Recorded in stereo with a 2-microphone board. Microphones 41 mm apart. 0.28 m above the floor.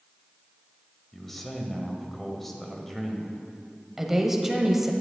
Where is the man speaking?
5° left (ahead or behind), 1.1 m.